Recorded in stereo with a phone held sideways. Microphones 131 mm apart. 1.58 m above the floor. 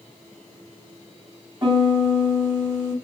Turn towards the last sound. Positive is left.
turn(degrees=-30)  # may be behind; listen again after turning